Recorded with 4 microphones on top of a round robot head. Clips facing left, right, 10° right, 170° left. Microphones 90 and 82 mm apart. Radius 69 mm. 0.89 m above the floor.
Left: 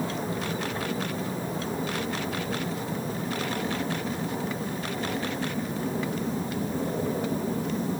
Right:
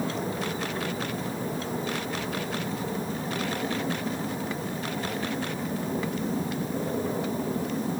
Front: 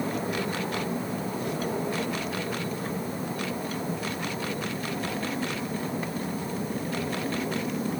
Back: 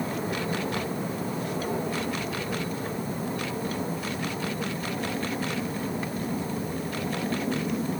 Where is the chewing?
No chewing in this recording.